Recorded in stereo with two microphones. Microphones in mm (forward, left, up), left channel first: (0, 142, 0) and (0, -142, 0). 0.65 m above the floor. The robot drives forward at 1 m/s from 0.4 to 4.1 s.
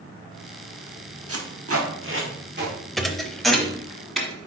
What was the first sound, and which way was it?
Tape being pulled, 55° right (ahead or behind).